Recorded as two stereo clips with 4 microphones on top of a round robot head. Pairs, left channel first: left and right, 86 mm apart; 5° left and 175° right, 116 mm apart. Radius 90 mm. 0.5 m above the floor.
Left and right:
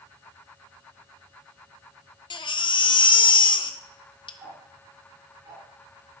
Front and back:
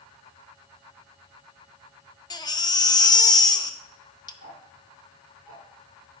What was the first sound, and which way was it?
A baby crying, 60° left.